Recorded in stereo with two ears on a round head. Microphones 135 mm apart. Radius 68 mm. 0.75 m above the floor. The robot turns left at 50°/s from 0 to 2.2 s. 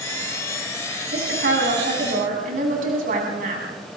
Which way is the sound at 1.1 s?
65° right.